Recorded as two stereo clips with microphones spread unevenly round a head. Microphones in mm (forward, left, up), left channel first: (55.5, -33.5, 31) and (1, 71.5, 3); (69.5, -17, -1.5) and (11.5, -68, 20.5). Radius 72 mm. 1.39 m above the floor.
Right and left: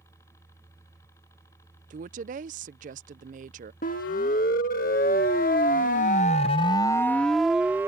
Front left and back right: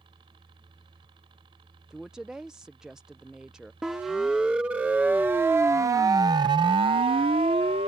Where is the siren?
55° right; by 7.9 s 170° right.